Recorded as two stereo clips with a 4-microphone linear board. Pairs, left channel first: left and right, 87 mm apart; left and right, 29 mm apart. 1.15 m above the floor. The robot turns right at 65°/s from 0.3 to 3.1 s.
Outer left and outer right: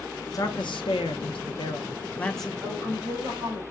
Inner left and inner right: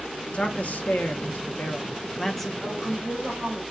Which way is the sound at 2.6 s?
150° right.